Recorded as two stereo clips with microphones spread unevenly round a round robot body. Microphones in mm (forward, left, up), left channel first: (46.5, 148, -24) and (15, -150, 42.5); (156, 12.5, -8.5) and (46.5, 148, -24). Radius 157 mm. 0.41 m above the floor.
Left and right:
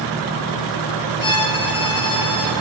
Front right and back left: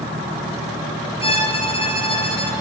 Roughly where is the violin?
Ahead.